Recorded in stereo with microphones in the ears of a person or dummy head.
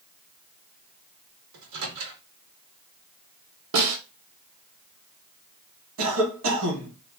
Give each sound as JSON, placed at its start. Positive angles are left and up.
{"t": 1.5, "sound": "a microwave", "side_deg": -70, "distance_m": 1.5}
{"t": 3.7, "sound": "a snare drum", "side_deg": -65, "distance_m": 1.8}
{"t": 6.0, "sound": "a cough", "side_deg": -70, "distance_m": 1.7}